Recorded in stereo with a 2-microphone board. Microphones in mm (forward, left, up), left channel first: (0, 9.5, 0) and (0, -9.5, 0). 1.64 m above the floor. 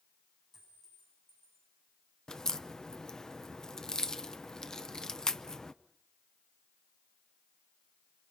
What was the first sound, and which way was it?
A clink, 20° left (ahead or behind).